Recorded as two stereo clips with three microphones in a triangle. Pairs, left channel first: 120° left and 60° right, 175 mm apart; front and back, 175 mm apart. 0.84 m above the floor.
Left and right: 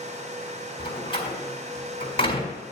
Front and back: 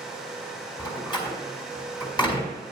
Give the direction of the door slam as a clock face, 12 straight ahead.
10 o'clock.